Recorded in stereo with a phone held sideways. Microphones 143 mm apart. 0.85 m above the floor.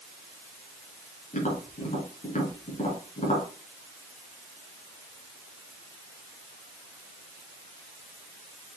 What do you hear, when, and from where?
1.3 s tapping: 65° left (ahead or behind), 3.5 m